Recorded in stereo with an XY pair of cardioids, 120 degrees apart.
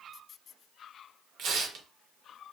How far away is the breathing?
I don't hear breathing.